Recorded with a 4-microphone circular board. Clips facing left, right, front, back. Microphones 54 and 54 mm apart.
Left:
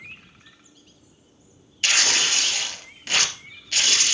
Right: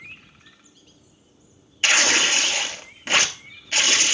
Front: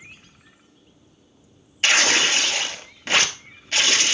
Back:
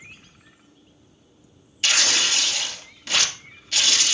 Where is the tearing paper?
35° right, 1.4 m.